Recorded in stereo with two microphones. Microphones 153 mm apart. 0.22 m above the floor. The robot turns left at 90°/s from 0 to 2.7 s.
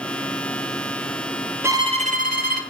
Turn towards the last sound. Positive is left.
turn(degrees=-110)